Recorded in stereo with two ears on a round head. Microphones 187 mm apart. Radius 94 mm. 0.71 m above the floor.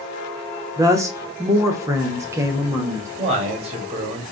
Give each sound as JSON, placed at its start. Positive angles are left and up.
{"t": 0.8, "sound": "a woman speaking", "side_deg": -15, "distance_m": 0.7}
{"t": 3.2, "sound": "a man speaking", "side_deg": -30, "distance_m": 1.2}